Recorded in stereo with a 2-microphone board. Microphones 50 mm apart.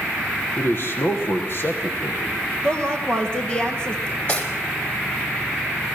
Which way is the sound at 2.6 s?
15° left (ahead or behind).